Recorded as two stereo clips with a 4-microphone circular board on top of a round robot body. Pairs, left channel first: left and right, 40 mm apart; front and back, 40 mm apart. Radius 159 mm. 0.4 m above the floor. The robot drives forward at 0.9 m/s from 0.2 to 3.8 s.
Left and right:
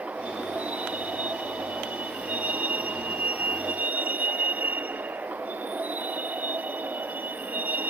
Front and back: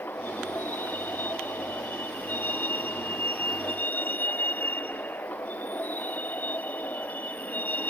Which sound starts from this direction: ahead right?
A vehicle, at 0.0 s.